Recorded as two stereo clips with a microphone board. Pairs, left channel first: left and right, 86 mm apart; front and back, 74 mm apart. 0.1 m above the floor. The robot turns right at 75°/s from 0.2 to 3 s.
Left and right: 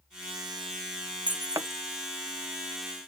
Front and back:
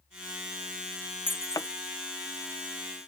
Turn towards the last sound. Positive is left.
turn(degrees=65)